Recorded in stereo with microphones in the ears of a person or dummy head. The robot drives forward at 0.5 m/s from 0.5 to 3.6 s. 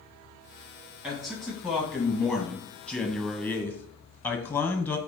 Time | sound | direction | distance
1.0 | a man speaking | 5° left (ahead or behind) | 1.7 m